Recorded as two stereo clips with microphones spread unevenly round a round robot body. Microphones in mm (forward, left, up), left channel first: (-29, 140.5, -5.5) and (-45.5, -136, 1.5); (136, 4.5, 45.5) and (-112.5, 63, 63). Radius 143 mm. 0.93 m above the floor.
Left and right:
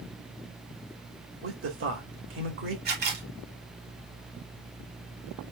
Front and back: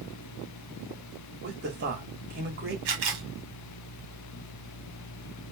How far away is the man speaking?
About 2.5 m.